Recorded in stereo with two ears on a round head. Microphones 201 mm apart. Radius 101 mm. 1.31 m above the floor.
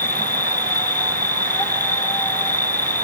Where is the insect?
10° left (ahead or behind).